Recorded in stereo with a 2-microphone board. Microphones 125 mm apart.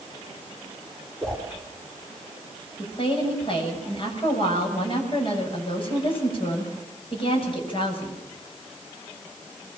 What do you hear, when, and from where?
1.2 s a whoosh: 5° left (ahead or behind), 5.5 m
2.8 s a woman speaking: 45° left (ahead or behind), 8 m